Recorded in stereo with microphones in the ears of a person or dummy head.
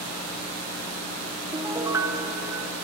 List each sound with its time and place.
1.5 s a piano: 15° right (ahead or behind), 1.1 m